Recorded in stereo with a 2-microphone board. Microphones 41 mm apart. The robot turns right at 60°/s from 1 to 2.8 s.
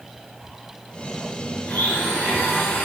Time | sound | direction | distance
1.6 | a blender | 60° left | 5.5 m